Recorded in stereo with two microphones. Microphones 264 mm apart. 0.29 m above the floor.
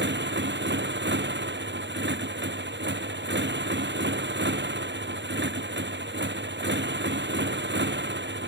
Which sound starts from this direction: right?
A motorcycle, at 0.0 s.